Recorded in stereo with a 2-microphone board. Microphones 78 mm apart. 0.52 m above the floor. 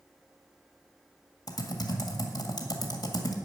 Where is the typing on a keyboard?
55° left (ahead or behind), 1.8 m.